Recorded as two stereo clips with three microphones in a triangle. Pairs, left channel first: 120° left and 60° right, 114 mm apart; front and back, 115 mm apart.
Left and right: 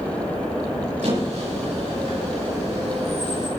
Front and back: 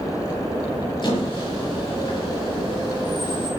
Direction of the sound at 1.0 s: 45° right.